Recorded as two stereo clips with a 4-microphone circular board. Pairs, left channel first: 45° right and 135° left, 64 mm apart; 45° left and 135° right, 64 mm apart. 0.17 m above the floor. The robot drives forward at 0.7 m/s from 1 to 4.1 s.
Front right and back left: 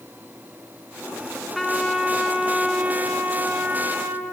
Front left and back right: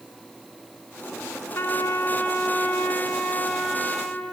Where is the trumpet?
40° left, 2 m; by 4.2 s 130° left, 1.9 m.